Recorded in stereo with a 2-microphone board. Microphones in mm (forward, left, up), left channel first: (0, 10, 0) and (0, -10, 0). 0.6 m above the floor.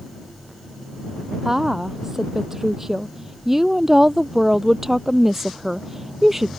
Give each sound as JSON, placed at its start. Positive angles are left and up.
{"t": 1.4, "sound": "a woman speaking", "side_deg": -20}